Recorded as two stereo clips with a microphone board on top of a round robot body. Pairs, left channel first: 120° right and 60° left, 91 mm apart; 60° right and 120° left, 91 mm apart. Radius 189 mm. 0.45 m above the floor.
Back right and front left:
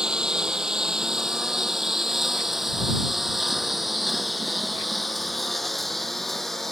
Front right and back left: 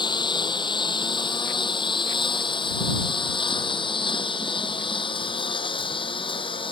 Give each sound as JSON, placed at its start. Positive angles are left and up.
{"t": 0.0, "sound": "a lawn mower", "azimuth_deg": -25}